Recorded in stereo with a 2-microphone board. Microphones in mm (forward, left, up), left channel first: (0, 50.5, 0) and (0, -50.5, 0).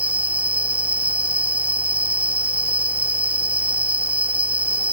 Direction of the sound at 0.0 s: 15° right (ahead or behind).